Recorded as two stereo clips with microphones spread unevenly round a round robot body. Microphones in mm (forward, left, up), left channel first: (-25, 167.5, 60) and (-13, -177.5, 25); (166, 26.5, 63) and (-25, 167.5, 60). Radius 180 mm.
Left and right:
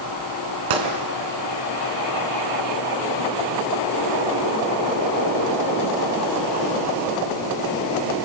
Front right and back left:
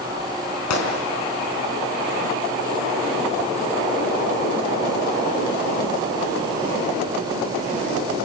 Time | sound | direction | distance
0.7 | a gunshot | 60° right | 4 m